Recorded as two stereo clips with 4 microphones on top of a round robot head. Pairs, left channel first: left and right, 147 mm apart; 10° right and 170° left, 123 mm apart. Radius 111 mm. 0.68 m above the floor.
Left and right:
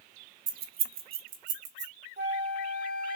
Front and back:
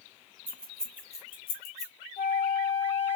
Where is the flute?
50° right, 0.9 m.